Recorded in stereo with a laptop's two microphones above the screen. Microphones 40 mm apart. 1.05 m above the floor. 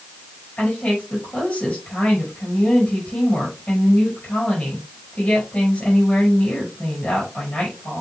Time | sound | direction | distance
0.6 | a woman speaking | 40° left (ahead or behind) | 5 m